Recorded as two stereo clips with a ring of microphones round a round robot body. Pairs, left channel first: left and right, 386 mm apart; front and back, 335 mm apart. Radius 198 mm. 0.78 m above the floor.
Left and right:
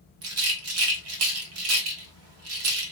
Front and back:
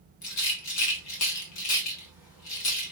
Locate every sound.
0.2 s a rattle: 40° right, 1.0 m